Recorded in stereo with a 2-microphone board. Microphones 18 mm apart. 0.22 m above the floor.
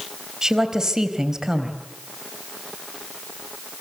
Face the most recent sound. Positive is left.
turn(degrees=-35)  # may be behind; listen again after turning